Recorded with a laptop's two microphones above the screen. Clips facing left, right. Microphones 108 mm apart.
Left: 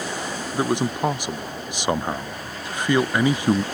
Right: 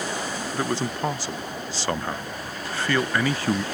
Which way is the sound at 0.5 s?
20° left (ahead or behind).